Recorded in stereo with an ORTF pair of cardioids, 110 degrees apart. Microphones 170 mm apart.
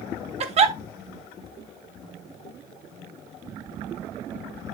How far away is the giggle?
About 1.3 m.